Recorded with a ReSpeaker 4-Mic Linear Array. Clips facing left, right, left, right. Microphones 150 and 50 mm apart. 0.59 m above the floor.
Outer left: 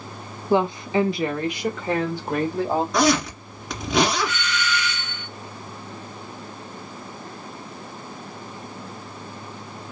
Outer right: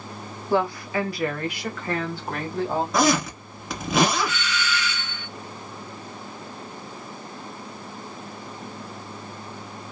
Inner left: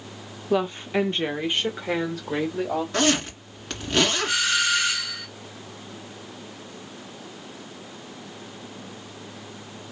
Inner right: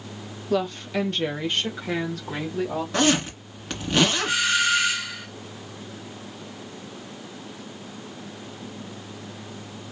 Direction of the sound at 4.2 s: 5° right (ahead or behind).